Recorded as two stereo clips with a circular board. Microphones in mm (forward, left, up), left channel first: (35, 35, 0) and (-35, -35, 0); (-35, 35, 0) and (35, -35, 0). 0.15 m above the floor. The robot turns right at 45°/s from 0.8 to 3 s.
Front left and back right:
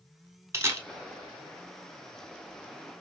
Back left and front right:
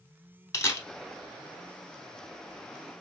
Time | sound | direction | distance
0.5 | a camera shutter | 175° left | 0.7 m